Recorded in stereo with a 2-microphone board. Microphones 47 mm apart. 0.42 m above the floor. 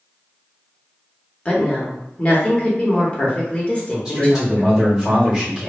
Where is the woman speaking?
25° left (ahead or behind), 1.0 m.